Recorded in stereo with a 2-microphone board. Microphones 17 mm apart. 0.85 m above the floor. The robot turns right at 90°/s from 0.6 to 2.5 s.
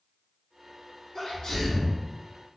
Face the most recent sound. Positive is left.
turn(degrees=160)